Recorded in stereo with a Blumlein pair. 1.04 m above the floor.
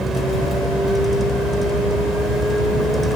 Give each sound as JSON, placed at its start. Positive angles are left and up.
{"t": 0.0, "sound": "a vehicle", "azimuth_deg": 0}